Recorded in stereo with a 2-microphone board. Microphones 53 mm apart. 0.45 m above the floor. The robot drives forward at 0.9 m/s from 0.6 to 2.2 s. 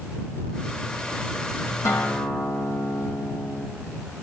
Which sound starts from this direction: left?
A guitar, at 1.9 s.